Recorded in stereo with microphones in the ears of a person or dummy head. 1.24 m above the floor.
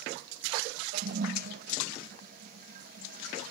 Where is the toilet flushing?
55° right (ahead or behind), 1.0 m.